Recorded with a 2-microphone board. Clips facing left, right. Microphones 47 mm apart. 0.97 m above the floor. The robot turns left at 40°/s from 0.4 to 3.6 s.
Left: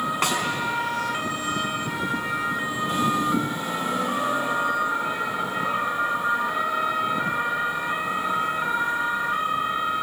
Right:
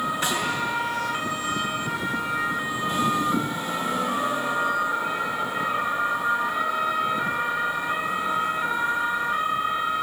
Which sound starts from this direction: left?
A snare drum, at 0.2 s.